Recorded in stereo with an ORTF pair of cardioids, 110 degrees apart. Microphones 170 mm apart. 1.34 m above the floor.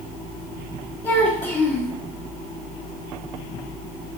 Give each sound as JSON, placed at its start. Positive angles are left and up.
{"t": 1.0, "sound": "a child speaking", "azimuth_deg": 25, "distance_m": 1.4}